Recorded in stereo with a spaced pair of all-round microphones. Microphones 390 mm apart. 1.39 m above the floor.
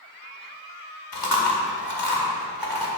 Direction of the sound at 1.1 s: 60° left (ahead or behind).